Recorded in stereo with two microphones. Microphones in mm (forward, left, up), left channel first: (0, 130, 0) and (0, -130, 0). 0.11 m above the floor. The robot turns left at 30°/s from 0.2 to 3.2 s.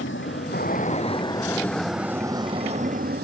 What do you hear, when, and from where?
0.0 s an aircraft: 50° left; by 3.3 s 40° right